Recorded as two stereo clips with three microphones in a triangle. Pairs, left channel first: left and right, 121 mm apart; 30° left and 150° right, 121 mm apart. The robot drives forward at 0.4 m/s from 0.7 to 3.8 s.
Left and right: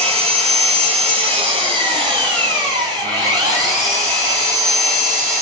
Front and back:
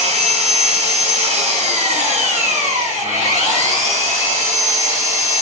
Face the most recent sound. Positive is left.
turn(degrees=-150)